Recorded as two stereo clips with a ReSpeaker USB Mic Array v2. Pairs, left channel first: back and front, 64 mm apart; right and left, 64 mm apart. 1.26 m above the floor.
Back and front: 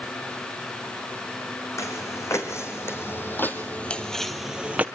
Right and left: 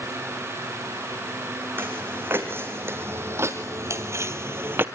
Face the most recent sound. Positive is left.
turn(degrees=50)